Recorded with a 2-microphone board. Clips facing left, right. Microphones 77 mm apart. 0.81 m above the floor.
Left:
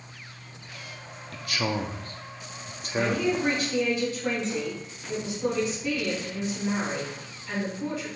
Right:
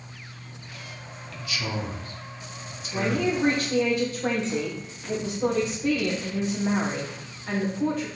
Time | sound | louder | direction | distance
1.3 | a man speaking | left 3 dB | 50° left (ahead or behind) | 1.2 m
2.9 | a man speaking | even | 50° right (ahead or behind) | 3 m